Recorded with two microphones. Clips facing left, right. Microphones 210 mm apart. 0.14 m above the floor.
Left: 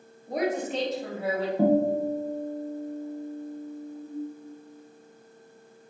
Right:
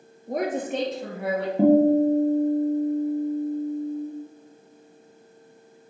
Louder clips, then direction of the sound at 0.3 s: Right 1 dB; 50° right (ahead or behind).